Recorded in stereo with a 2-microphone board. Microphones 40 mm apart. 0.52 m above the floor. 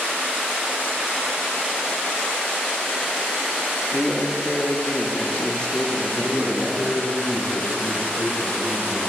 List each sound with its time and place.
3.9 s a man speaking: 25° left (ahead or behind), 0.8 m
6.2 s a man speaking: 60° right (ahead or behind), 2.5 m